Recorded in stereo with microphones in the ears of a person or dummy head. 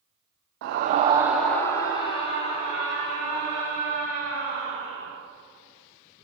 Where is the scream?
65° right (ahead or behind), 0.8 m; by 5.1 s 45° left (ahead or behind), 5 m.